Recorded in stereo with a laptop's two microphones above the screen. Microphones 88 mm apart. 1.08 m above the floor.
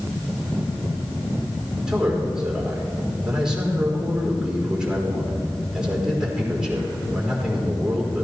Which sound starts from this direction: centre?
A man speaking, at 1.9 s.